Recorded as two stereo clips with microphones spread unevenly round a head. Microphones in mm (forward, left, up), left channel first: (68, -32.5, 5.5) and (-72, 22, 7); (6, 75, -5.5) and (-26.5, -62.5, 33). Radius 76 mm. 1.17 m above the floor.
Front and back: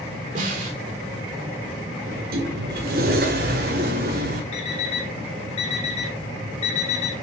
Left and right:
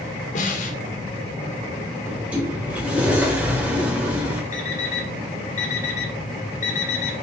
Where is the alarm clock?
30° left, 2 m.